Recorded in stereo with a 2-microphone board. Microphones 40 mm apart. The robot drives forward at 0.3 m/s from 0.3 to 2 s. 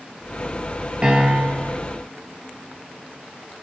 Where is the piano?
25° right (ahead or behind), 0.6 m; by 1.7 s 15° right (ahead or behind), 0.7 m.